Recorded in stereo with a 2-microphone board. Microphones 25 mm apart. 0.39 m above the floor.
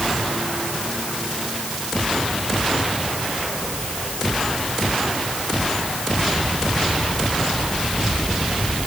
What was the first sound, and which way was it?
Only background noise.